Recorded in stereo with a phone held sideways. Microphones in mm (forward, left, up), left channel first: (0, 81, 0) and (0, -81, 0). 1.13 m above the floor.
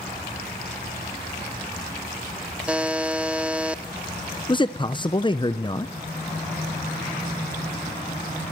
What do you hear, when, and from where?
2.7 s a buzzer: 5° right (ahead or behind), 0.6 m
4.5 s a man speaking: 25° left (ahead or behind), 0.6 m